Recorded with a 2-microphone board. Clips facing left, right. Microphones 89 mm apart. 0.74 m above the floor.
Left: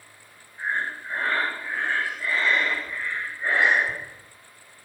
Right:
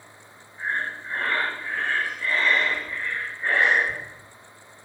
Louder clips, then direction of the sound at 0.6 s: Even; 15° left (ahead or behind).